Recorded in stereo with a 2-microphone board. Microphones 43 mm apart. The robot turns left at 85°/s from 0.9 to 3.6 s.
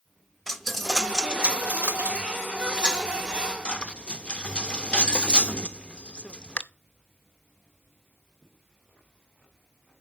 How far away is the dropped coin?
About 0.5 m.